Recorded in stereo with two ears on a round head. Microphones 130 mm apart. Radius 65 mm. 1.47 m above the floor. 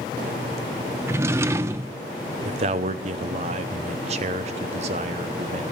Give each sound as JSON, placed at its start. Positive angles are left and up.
{"t": 1.1, "sound": "a drawer", "side_deg": -20, "distance_m": 0.5}
{"t": 2.5, "sound": "a man speaking", "side_deg": -45, "distance_m": 0.8}